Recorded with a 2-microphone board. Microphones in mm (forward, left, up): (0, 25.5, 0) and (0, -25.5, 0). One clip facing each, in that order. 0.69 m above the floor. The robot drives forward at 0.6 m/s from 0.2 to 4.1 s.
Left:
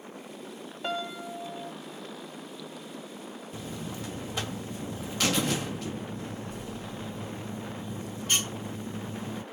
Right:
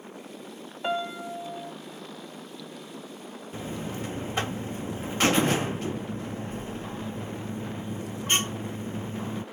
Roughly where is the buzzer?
Right.